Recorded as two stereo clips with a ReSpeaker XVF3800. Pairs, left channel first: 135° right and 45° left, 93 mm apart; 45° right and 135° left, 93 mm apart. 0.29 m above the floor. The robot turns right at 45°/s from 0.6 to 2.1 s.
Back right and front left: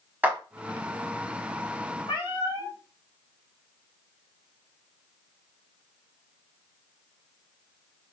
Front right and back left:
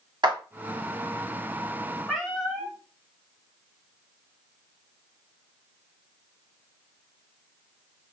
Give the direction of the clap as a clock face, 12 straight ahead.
8 o'clock.